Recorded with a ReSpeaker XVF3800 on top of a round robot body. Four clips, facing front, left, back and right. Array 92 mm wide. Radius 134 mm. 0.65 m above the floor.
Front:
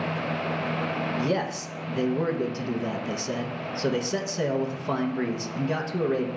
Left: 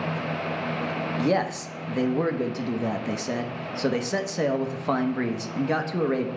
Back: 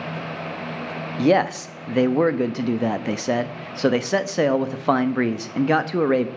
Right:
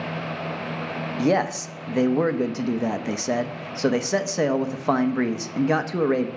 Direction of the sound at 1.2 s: 165° right.